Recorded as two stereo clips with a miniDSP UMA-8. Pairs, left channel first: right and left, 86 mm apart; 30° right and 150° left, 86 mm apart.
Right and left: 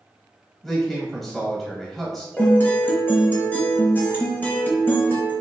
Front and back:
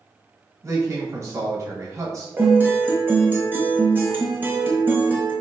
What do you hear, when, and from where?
0.6 s a man speaking: straight behind, 1.4 m
2.4 s a guitar: 150° right, 0.9 m